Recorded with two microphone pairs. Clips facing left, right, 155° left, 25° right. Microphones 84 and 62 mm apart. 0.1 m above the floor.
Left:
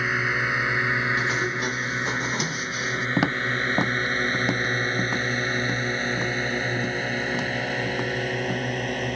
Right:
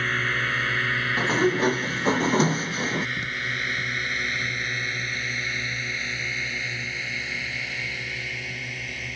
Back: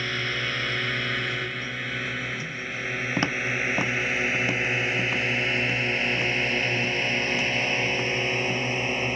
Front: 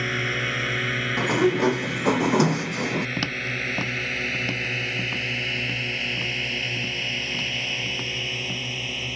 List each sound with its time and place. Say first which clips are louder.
0.0 s a drone: left 1 dB, front 3 dB; 30° left; by 9.2 s 110° left
1.2 s a sliding door: right 4 dB, front 9 dB; 35° right
3.2 s footsteps: left 7 dB, back 2 dB; 90° left; by 8.7 s 75° left